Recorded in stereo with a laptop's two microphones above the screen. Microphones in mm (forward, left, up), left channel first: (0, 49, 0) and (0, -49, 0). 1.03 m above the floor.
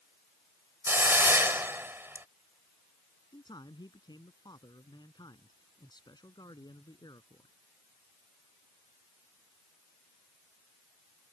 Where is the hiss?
25° right (ahead or behind).